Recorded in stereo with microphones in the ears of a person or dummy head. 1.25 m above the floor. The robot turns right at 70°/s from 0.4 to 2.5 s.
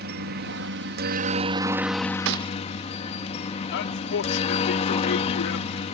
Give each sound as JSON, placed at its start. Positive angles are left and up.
{"t": 0.0, "sound": "a helicopter", "azimuth_deg": -115}
{"t": 2.2, "sound": "a gunshot", "side_deg": -65}
{"t": 3.7, "sound": "a man speaking", "side_deg": 65}